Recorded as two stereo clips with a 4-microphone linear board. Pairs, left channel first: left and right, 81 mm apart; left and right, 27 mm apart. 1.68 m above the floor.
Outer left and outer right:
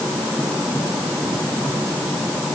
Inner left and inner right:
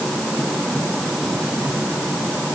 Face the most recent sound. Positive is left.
No sound to turn to.